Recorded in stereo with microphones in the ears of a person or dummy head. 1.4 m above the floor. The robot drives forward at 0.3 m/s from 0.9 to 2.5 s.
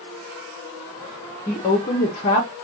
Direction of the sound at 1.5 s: 20° left (ahead or behind).